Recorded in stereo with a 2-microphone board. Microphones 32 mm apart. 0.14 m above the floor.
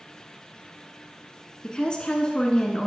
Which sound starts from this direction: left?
A woman speaking, at 1.6 s.